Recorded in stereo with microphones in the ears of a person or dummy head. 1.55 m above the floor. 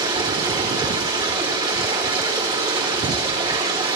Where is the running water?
25° right (ahead or behind), 4 m.